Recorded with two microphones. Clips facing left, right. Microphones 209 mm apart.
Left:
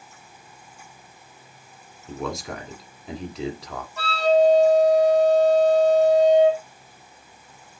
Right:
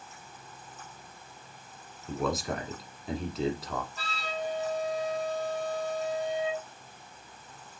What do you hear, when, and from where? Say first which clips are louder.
2.1 s a man speaking: even; centre (ahead or behind), 1.4 m
4.0 s a flute: left 18 dB; 70° left (ahead or behind), 3 m